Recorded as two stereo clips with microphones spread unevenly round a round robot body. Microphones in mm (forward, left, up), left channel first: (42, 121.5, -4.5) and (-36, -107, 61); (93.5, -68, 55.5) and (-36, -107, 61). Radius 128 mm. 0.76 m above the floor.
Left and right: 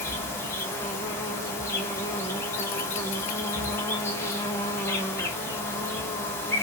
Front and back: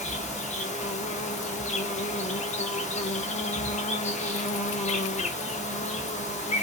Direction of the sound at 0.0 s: 15° right.